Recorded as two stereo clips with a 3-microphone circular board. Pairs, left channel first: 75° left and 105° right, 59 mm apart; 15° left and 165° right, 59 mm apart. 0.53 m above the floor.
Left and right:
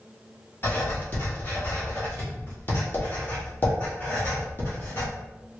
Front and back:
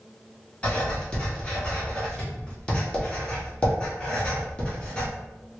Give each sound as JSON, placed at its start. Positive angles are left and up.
{"t": 0.6, "sound": "writing", "azimuth_deg": 75, "distance_m": 1.3}